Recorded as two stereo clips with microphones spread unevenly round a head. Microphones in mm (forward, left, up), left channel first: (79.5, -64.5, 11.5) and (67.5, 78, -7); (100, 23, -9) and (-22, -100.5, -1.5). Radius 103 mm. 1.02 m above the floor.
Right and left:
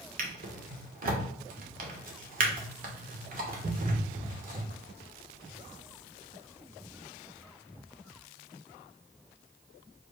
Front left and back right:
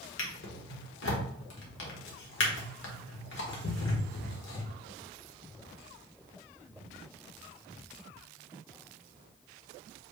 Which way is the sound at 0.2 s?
75° left.